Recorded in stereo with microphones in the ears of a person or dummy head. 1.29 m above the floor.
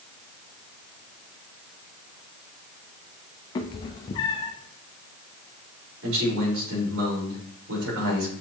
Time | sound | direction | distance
3.5 | a cat meowing | 20° left (ahead or behind) | 0.7 m
6.0 | a man speaking | 75° right (ahead or behind) | 4 m